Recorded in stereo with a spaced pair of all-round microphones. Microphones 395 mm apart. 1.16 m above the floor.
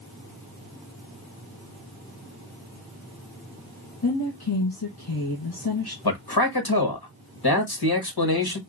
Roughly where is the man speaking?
Left.